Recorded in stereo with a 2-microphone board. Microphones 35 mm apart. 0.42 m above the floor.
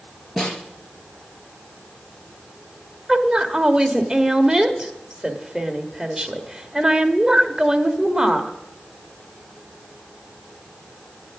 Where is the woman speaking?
20° right (ahead or behind), 1.5 m.